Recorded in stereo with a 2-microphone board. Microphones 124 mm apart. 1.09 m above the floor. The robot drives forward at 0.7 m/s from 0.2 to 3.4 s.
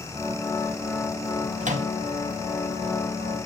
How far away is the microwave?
About 1.3 m.